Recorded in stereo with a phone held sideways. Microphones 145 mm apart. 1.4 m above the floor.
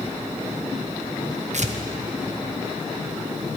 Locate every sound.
1.5 s tearing paper: 60° right (ahead or behind), 0.7 m